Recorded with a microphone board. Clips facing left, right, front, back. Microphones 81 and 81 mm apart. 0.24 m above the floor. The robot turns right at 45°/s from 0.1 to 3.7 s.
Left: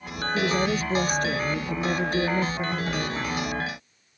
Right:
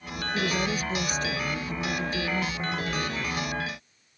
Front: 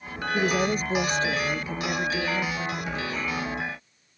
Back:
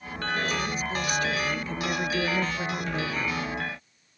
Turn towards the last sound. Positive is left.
turn(degrees=170)